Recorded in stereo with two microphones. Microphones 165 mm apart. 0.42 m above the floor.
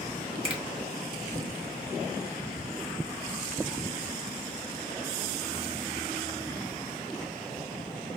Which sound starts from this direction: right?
A finger snap, at 0.4 s.